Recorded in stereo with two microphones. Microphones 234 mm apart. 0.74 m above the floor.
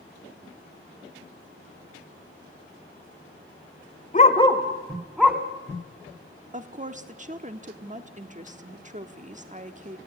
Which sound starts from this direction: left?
A dog barking, at 4.1 s.